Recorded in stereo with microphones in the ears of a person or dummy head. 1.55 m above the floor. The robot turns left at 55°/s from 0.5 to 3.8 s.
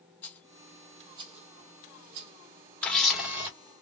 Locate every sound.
0.2 s a rattle: 5° left (ahead or behind), 0.6 m; by 2.3 s 55° right (ahead or behind), 0.6 m
2.8 s a camera shutter: 10° left, 1.3 m; by 3.5 s 30° right, 1.3 m